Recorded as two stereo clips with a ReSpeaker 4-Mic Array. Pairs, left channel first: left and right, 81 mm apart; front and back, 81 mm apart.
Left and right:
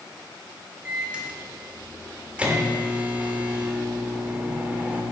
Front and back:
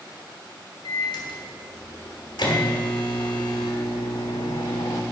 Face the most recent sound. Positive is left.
turn(degrees=-15)